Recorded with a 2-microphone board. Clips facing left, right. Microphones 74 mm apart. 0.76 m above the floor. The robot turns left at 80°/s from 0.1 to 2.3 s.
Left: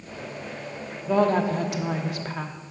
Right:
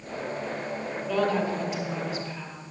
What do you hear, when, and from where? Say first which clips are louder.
1.1 s a woman speaking: left 5 dB; 160° left, 1.1 m; by 2.6 s 60° left, 1.1 m